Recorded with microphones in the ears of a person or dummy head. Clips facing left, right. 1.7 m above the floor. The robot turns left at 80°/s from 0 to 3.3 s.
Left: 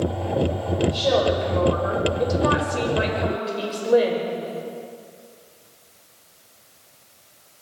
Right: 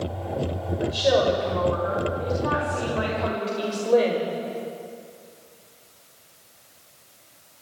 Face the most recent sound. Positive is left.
turn(degrees=15)